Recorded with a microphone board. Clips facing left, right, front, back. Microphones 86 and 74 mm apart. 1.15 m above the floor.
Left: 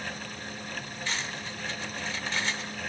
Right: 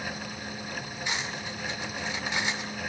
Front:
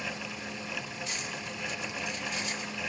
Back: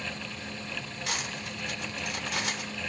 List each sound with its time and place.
1.1 s cutlery clinking: 165° right, 2.5 m